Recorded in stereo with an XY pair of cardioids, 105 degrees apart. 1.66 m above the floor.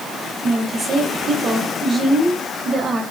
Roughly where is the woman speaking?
Ahead right.